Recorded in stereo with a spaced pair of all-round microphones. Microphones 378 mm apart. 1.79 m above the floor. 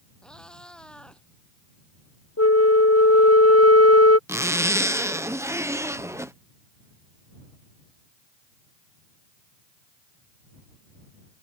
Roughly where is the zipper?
Centre.